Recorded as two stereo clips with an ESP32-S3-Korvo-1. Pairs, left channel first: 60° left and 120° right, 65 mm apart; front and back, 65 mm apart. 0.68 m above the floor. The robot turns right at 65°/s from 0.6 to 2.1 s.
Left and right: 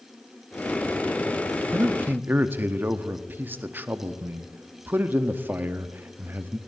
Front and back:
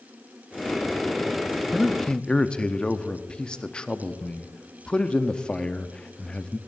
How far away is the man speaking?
About 0.7 m.